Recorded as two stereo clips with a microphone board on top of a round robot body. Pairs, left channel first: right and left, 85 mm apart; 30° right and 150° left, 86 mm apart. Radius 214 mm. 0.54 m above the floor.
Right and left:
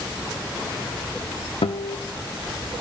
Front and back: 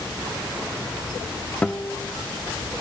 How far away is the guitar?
About 1.1 m.